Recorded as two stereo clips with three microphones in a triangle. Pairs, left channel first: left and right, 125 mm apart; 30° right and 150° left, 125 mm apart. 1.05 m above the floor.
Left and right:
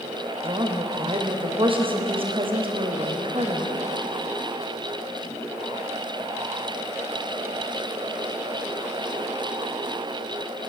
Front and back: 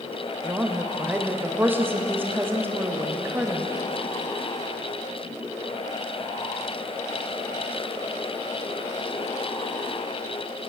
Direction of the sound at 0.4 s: 135° right.